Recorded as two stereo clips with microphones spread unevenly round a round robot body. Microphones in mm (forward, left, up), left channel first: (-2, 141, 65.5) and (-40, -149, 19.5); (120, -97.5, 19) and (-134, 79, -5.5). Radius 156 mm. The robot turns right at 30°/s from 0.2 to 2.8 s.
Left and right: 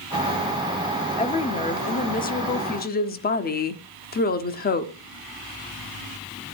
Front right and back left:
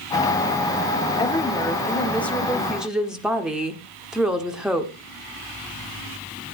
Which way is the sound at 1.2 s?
25° left.